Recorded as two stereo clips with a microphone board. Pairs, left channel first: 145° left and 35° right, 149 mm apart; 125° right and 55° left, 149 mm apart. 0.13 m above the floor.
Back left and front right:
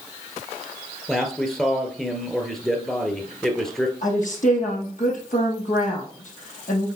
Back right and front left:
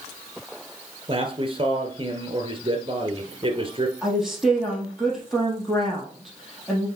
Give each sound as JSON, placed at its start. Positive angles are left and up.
{"t": 1.1, "sound": "a man speaking", "azimuth_deg": 60, "distance_m": 1.3}
{"t": 4.0, "sound": "a woman speaking", "azimuth_deg": 145, "distance_m": 3.0}